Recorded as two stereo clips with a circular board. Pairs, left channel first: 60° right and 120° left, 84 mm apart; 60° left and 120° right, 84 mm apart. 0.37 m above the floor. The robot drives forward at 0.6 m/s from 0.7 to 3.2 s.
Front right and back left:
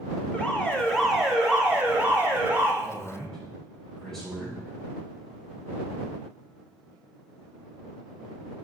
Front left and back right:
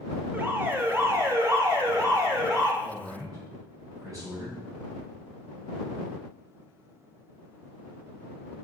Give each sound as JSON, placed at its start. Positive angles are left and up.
{"t": 0.3, "sound": "an alarm", "azimuth_deg": -115, "distance_m": 0.5}
{"t": 2.8, "sound": "a man speaking", "azimuth_deg": -135, "distance_m": 2.0}